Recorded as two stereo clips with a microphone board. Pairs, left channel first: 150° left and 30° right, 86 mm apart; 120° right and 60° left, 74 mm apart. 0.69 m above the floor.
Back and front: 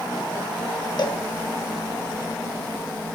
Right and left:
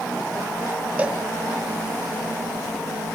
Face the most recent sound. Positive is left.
turn(degrees=130)